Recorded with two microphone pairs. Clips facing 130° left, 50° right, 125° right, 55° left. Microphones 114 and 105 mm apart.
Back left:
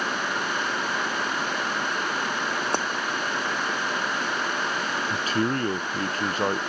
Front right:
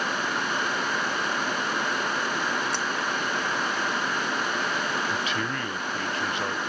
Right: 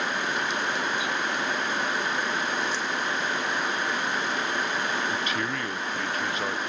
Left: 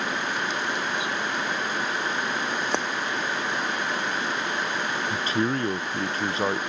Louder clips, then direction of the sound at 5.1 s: Back left 4 dB, left 4 dB; 95° left.